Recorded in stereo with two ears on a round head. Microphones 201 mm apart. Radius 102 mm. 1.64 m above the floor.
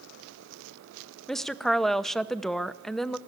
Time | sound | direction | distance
1.3 | a woman speaking | centre (ahead or behind) | 0.8 m